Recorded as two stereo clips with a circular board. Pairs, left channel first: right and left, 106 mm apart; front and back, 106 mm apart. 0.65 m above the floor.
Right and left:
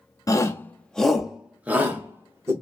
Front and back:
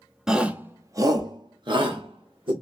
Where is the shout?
95° right, 0.7 m; by 2.5 s 150° left, 1.3 m.